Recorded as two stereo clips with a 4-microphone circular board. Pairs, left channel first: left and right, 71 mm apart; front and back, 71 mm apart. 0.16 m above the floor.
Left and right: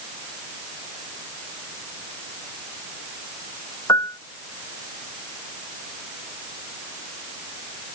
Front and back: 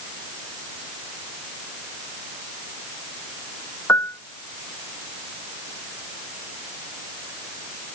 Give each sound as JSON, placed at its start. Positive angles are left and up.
{"t": 3.9, "sound": "a piano", "azimuth_deg": 50}